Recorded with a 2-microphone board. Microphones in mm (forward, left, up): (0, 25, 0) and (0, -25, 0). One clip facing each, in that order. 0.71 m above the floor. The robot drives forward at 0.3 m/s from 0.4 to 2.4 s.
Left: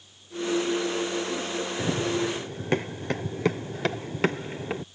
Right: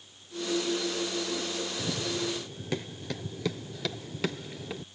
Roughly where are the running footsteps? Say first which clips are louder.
Left 8 dB; left.